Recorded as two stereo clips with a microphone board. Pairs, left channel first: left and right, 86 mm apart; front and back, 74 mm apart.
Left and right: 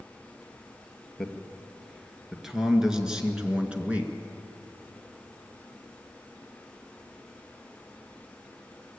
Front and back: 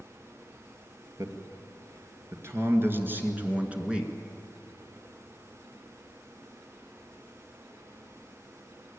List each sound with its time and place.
1.2 s a man speaking: 175° left, 2.5 m; by 4.1 s 120° right, 1.7 m